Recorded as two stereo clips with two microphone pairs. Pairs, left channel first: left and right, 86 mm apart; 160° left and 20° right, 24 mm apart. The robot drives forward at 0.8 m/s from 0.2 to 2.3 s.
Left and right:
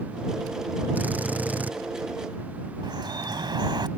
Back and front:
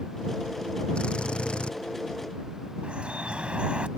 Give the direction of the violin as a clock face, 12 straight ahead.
No violin in this recording.